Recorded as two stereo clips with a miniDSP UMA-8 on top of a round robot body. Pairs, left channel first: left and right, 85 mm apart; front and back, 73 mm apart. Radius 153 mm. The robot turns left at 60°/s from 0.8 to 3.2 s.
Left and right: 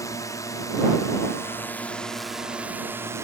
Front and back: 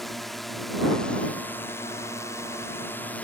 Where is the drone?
85° left; by 3.2 s 55° right.